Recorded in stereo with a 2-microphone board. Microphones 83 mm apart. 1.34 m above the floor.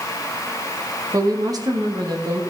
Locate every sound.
1.1 s a woman speaking: 45° right (ahead or behind), 1.2 m; by 2.4 s 55° right (ahead or behind), 2 m